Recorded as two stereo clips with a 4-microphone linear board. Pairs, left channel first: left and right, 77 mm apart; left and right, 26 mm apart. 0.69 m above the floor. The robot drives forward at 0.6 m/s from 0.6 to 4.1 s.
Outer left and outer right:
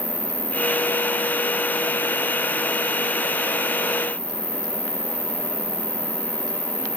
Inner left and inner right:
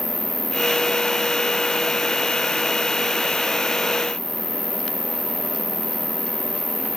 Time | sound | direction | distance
0.0 | an insect | 75° right (ahead or behind) | 3 m